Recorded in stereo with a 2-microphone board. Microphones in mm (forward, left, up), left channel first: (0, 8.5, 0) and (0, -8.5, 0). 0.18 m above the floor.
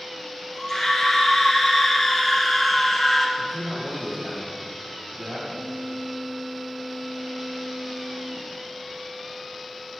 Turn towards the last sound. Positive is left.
turn(degrees=-55)  # may be behind; listen again after turning